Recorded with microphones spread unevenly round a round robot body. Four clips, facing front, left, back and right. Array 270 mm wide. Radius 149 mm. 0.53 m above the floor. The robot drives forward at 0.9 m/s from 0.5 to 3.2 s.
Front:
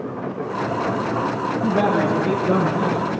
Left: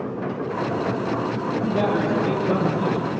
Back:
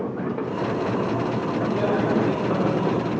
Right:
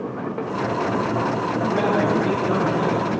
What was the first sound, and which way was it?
A man speaking, 5° right.